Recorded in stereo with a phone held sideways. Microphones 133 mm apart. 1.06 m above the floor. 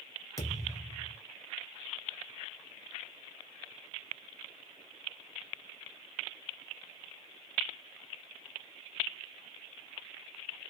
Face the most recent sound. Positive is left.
turn(degrees=25)  # may be behind; listen again after turning